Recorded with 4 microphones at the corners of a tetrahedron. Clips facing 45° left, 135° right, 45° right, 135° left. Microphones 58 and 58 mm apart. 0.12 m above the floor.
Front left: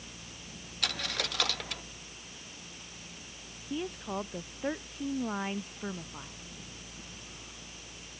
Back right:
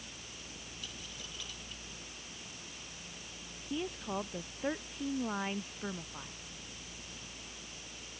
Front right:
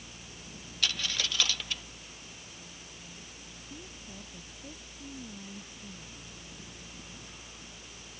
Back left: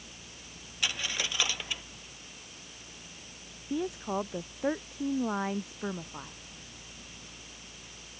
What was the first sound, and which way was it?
A dropped coin, 60° left.